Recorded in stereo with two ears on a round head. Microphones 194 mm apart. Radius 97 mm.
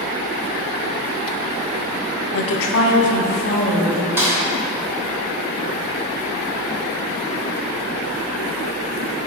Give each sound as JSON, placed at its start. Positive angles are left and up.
{"t": 2.3, "sound": "a woman speaking", "side_deg": 65, "distance_m": 0.7}
{"t": 4.2, "sound": "a snare drum", "side_deg": -10, "distance_m": 1.6}